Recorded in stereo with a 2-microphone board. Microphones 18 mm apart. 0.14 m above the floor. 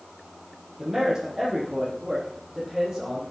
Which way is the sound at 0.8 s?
15° right (ahead or behind).